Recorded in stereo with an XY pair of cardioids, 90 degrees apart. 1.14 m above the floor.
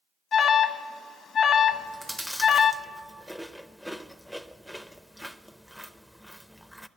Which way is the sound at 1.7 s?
5° left.